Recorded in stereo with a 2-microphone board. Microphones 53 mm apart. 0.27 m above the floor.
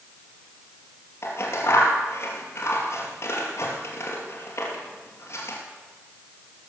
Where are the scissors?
55° left (ahead or behind), 2.5 m.